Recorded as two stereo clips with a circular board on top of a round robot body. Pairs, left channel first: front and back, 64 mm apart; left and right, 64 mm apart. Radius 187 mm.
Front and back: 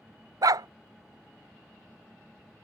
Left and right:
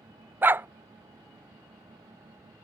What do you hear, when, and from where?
0.4 s a dog barking: 150° right